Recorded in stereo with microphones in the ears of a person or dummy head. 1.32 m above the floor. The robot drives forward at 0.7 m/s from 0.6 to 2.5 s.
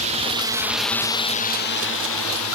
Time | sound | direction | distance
0.0 | a drone | 40° right (ahead or behind) | ?